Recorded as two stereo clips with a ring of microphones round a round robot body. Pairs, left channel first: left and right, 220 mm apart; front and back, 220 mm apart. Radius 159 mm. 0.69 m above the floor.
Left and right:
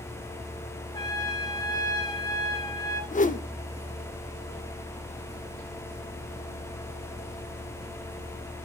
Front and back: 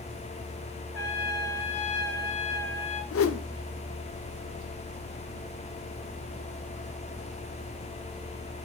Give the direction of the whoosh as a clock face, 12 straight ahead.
11 o'clock.